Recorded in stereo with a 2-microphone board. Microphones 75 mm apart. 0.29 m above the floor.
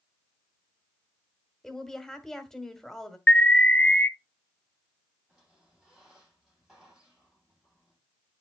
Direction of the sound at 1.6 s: 5° left (ahead or behind).